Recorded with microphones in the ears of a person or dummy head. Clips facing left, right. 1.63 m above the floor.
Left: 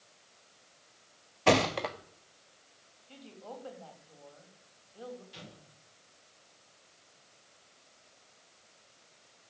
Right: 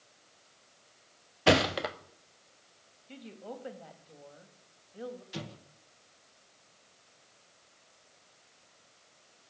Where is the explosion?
75° right (ahead or behind), 1.9 m.